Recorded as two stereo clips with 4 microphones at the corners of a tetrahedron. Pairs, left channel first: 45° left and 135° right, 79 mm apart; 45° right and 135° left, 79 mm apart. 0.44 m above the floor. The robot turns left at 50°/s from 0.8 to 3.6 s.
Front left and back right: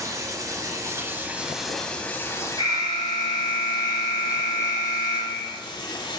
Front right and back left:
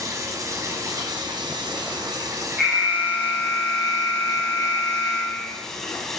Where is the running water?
Straight behind, 1.1 m; by 6.2 s 40° left, 1.1 m.